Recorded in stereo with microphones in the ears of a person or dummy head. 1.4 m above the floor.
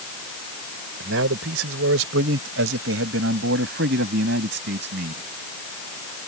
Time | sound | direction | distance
1.0 | a man speaking | 85° right | ?